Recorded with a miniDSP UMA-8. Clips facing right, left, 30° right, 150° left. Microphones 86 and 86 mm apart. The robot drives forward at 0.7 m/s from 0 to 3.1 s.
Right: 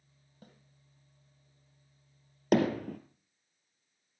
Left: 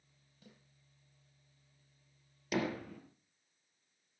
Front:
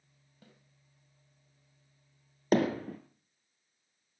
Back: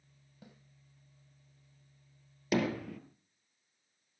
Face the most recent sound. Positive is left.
turn(degrees=-85)